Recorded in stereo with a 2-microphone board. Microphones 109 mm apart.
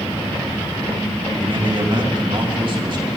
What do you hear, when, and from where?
1.4 s a man speaking: 50° right (ahead or behind), 3 m